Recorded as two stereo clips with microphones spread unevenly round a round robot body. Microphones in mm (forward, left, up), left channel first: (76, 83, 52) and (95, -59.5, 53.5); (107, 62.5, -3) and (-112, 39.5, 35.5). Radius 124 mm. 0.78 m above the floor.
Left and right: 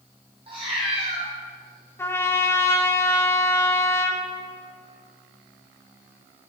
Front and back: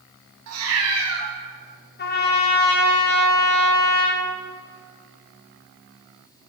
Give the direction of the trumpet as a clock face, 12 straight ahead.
11 o'clock.